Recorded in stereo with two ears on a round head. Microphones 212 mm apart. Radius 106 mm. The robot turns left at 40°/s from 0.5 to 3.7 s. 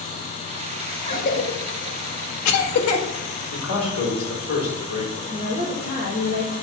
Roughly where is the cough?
Left.